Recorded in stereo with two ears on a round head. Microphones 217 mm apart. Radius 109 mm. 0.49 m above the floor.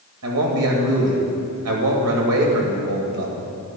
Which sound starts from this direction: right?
A man speaking, at 0.2 s.